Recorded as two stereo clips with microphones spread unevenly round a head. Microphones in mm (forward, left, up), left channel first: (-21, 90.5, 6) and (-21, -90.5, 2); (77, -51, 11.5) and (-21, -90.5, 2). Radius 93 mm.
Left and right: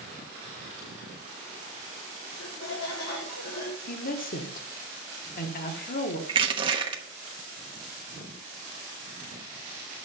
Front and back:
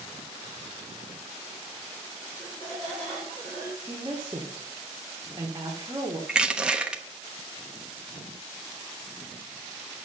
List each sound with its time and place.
2.3 s laughter: 80° left, 1.6 m
3.9 s a woman speaking: 130° left, 1.3 m
6.3 s crushing: 80° right, 1.0 m